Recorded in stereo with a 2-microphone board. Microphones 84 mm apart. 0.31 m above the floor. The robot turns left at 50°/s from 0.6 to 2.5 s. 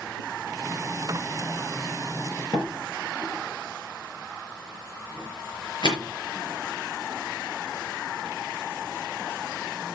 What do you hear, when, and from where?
2.5 s a door slam: 55° left (ahead or behind), 5.5 m